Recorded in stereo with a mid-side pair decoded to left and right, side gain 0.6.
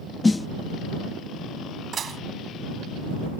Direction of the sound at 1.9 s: 35° right.